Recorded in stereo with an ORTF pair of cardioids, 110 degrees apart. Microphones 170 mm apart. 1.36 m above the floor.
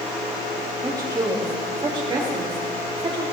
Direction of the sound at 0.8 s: 20° right.